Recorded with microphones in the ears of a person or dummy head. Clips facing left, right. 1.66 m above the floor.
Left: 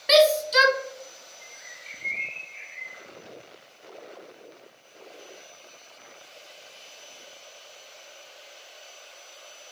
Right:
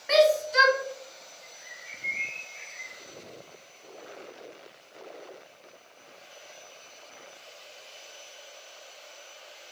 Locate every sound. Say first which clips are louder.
0.1 s a shout: left 2 dB; 50° left (ahead or behind), 0.8 m
1.4 s a bird: even; 80° left, 1.2 m